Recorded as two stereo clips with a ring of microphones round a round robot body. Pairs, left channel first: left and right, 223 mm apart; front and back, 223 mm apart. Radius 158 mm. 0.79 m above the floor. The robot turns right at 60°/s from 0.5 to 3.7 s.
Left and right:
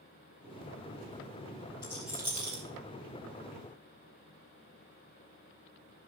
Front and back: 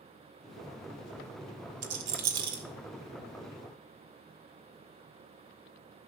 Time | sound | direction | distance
1.8 | a rattle | 170° left | 1.4 m